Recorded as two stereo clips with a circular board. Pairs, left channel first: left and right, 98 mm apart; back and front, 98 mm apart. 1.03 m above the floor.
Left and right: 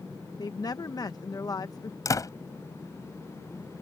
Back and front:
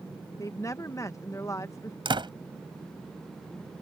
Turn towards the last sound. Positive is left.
turn(degrees=35)